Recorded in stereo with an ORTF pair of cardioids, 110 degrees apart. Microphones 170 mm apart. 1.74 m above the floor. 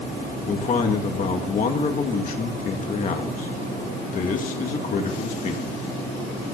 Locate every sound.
0.5 s a man speaking: 50° left, 2 m